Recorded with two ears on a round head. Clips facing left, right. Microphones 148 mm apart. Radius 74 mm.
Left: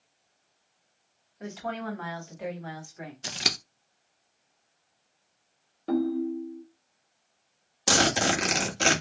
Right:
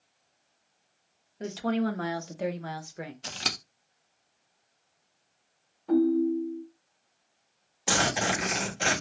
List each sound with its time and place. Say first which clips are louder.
1.4 s a woman speaking: right 6 dB; 40° right (ahead or behind), 1.2 m; by 3.1 s 50° right (ahead or behind), 1.0 m
3.2 s scissors: left 2 dB; 15° left (ahead or behind), 0.5 m
5.9 s a ringtone: right 4 dB; 75° left (ahead or behind), 1.4 m
7.9 s a zipper: left 3 dB; 50° left (ahead or behind), 1.4 m